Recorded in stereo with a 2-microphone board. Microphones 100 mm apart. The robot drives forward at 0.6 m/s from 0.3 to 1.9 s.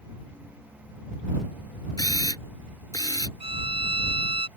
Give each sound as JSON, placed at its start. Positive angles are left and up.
{"t": 2.0, "sound": "a camera shutter", "side_deg": 35}
{"t": 3.4, "sound": "a violin", "side_deg": -70}